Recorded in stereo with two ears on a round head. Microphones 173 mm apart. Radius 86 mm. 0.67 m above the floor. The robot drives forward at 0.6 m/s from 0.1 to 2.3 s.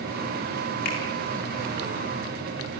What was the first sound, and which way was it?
A finger snap, 55° left (ahead or behind).